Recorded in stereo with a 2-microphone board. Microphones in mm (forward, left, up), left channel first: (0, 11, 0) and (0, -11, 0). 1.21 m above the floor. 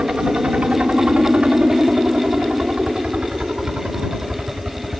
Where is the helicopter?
60° right (ahead or behind); by 5.0 s 55° right (ahead or behind).